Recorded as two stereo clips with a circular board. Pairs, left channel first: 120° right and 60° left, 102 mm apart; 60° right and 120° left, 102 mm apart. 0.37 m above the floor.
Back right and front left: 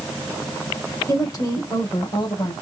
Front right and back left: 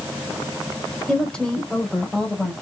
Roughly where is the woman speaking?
Behind right.